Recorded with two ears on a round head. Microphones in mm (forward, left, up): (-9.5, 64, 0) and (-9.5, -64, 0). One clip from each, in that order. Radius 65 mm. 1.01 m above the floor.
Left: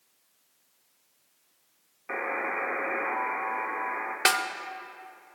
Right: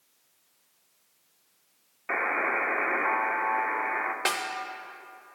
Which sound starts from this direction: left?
A snare drum, at 4.2 s.